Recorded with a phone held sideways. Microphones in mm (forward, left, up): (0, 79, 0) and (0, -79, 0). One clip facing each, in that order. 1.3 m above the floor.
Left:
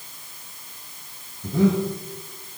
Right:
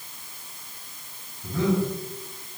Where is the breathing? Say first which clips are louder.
Left 4 dB; 25° left (ahead or behind), 7 m.